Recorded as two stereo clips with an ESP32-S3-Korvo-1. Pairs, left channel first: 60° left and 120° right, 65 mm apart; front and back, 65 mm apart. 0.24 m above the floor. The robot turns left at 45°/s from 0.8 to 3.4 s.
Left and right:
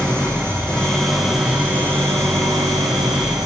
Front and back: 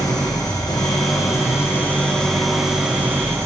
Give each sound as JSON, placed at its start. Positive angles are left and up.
{"t": 0.0, "sound": "an engine running", "azimuth_deg": -15, "distance_m": 4.5}